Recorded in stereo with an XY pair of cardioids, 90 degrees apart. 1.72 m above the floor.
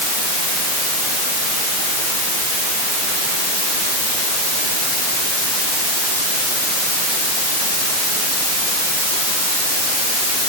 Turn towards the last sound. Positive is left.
No sound to turn to.